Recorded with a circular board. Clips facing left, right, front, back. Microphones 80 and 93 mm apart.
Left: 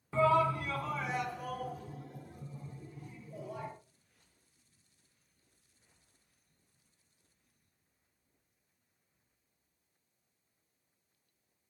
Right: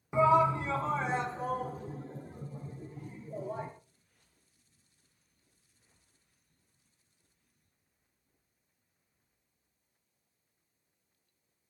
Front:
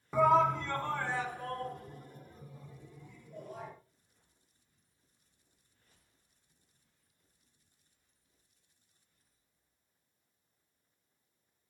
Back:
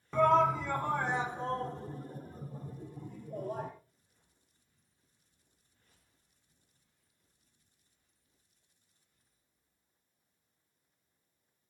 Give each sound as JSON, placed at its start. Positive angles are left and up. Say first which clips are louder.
{"t": 0.1, "sound": "a shout", "louder": "right 3 dB, even", "azimuth_deg": -60, "distance_m": 1.0}